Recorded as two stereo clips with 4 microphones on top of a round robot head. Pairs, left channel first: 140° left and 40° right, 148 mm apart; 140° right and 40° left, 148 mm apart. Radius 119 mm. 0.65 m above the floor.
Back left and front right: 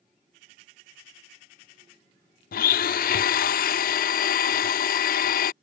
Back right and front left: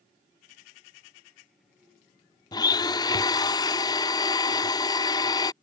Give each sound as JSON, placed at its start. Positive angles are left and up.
{"t": 2.5, "sound": "a blender", "azimuth_deg": 155}